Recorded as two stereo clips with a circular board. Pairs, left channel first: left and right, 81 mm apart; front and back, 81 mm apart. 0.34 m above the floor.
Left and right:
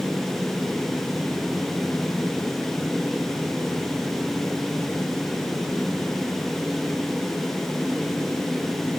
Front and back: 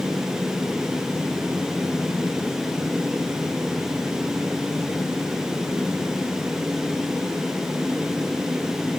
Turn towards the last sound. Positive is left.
No sound to turn to.